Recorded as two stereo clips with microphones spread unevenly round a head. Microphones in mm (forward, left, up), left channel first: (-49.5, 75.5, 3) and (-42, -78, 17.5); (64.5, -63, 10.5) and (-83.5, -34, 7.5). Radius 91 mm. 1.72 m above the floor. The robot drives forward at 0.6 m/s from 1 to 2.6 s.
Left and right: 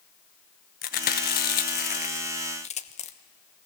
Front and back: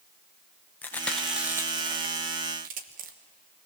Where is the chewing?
65° left, 0.9 m; by 3.1 s 135° left, 1.1 m.